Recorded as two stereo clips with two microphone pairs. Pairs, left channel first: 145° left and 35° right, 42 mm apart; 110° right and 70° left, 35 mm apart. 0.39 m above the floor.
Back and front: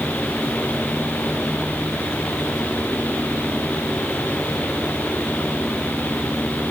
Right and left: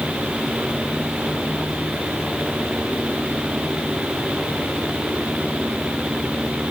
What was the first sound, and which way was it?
Only background noise.